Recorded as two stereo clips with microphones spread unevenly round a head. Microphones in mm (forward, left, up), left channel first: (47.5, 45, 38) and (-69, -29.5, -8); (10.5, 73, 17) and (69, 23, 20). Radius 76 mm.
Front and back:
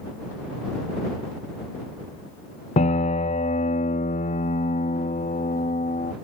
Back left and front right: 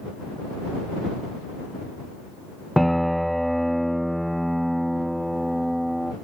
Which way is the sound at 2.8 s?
60° left.